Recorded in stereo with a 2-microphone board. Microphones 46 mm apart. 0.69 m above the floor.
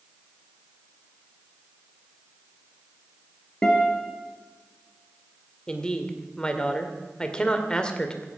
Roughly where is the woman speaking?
Centre.